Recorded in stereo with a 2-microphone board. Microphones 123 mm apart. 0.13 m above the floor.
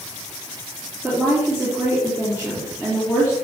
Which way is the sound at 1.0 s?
15° right (ahead or behind).